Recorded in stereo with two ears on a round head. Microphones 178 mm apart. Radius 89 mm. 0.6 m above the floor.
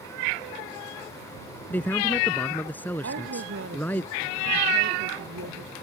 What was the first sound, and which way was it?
A man speaking, 10° left (ahead or behind).